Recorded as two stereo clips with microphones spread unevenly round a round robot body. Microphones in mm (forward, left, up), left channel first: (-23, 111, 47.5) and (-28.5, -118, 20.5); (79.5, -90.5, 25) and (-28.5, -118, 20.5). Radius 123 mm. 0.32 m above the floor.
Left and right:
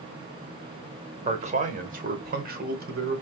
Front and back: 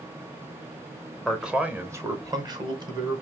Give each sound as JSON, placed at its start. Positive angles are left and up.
{"t": 1.2, "sound": "a man speaking", "azimuth_deg": -75, "distance_m": 1.1}